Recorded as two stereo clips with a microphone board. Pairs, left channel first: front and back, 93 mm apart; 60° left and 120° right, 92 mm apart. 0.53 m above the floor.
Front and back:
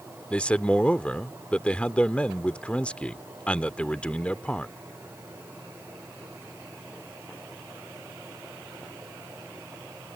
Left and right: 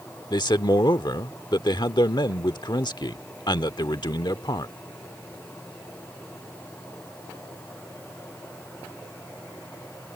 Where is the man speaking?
75° left.